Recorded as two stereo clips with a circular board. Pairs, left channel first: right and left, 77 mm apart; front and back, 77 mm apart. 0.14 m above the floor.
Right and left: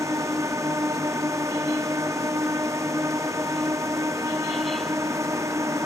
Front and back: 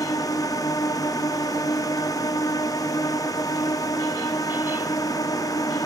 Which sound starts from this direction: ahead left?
A drone, at 0.0 s.